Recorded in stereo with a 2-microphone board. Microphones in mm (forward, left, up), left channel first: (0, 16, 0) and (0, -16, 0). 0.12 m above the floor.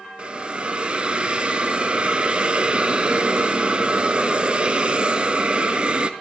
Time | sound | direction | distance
0.2 | a hiss | 35° right (ahead or behind) | 0.6 m